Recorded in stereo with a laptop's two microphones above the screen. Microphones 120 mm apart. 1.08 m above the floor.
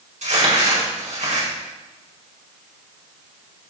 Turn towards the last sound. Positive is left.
turn(degrees=-75)  # may be behind; listen again after turning